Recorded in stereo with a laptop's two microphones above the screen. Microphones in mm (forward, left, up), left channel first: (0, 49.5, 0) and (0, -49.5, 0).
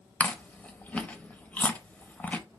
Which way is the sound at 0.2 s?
15° left (ahead or behind).